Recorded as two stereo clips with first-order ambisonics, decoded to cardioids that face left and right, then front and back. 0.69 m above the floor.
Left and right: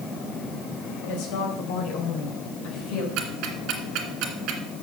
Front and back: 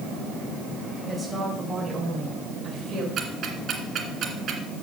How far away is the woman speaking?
About 4 m.